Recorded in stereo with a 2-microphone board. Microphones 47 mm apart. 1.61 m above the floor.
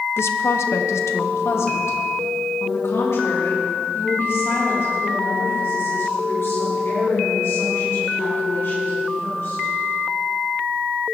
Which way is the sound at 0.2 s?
65° left (ahead or behind).